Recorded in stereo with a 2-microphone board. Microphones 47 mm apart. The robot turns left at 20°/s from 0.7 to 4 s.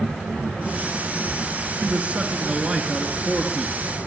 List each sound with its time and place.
1.8 s a man speaking: 145° right, 4.5 m; by 4.0 s 175° left, 4.5 m